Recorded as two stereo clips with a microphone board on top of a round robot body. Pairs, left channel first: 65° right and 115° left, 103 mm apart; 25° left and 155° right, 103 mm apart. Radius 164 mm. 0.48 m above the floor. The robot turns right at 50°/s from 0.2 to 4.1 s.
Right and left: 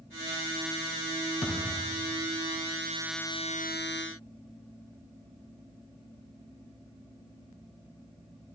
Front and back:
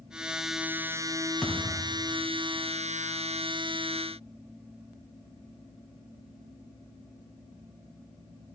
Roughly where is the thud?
Right.